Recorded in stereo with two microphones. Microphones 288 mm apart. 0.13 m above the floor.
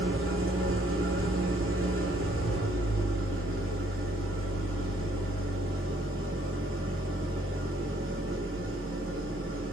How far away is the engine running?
About 1.0 m.